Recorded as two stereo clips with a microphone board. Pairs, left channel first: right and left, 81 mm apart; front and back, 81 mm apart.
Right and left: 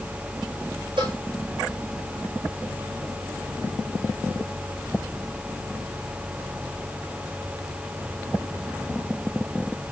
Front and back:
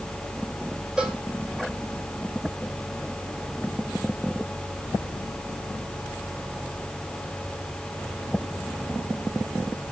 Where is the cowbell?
100° left, 5.5 m.